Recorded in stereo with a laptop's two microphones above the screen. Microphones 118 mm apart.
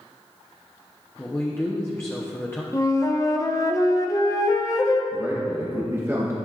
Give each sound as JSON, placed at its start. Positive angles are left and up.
{"t": 1.2, "sound": "a man speaking", "side_deg": 20, "distance_m": 0.9}
{"t": 2.7, "sound": "a flute", "side_deg": 25, "distance_m": 0.6}
{"t": 5.1, "sound": "a man speaking", "side_deg": -20, "distance_m": 1.0}